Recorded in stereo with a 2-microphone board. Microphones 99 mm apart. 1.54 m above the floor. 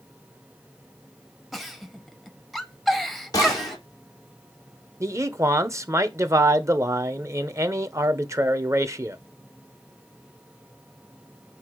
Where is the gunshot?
40° left (ahead or behind), 3 m.